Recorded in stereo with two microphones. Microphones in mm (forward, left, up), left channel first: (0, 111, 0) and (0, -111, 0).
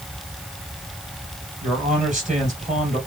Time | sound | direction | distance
1.6 | a man speaking | 35° right (ahead or behind) | 3 m